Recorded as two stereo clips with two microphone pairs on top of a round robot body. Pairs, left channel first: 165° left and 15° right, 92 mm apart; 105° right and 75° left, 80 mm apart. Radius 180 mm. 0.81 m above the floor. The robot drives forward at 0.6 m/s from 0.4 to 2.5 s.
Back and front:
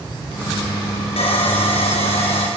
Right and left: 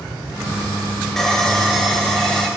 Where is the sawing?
165° left, 5.5 m; by 2.5 s 170° left, 6.5 m.